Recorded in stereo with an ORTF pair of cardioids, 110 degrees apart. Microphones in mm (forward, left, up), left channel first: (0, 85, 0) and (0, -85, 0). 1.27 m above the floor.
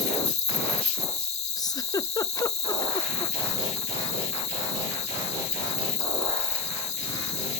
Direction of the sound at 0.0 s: 40° left.